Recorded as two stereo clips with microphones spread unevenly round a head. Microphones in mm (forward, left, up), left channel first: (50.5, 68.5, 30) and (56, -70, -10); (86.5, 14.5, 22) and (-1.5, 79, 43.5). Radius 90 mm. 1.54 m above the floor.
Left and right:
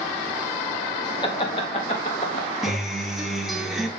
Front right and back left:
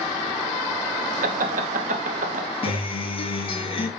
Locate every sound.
1.2 s laughter: 160° left, 1.9 m; by 2.8 s 145° left, 3.5 m
2.6 s a guitar: straight ahead, 2.5 m